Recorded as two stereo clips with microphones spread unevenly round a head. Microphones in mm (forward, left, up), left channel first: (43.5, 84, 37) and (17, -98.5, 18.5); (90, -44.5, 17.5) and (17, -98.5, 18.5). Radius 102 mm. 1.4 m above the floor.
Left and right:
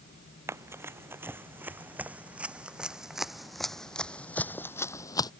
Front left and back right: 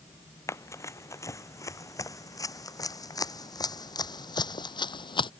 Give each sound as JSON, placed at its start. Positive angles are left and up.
{"t": 0.5, "sound": "running footsteps", "azimuth_deg": -20}